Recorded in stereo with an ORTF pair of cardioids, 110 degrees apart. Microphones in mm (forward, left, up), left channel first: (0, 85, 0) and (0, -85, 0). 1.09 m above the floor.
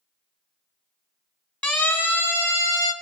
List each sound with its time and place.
1.6 s a siren: 10° left, 4.5 m; by 2.9 s 20° left, 3 m